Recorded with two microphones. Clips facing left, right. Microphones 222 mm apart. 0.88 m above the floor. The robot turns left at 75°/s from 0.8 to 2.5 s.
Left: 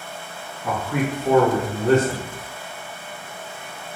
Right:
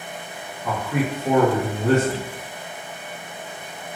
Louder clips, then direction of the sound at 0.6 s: Even; 15° left.